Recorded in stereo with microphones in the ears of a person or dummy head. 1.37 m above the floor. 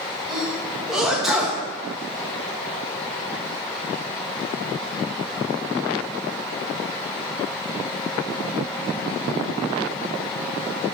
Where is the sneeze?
Centre (ahead or behind), 1.5 m.